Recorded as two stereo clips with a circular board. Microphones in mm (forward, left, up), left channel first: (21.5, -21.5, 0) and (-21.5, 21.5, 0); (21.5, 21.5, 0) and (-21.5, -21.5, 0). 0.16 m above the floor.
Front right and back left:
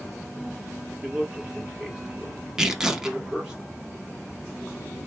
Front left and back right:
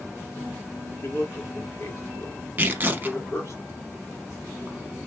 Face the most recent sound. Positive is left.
turn(degrees=-155)